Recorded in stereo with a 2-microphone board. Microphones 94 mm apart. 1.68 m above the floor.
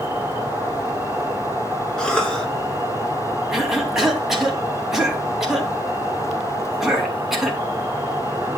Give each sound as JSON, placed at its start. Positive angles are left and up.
{"t": 0.0, "sound": "an insect", "side_deg": -25, "distance_m": 1.7}
{"t": 2.0, "sound": "a cough", "side_deg": 10, "distance_m": 4.0}
{"t": 3.5, "sound": "a cough", "side_deg": -5, "distance_m": 3.0}